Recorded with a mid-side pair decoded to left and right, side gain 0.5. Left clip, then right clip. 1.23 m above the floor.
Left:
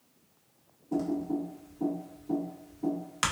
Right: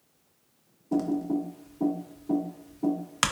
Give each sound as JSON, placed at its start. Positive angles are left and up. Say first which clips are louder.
{"t": 0.9, "sound": "typing on a keyboard", "louder": "right 3 dB", "azimuth_deg": -40, "distance_m": 0.8}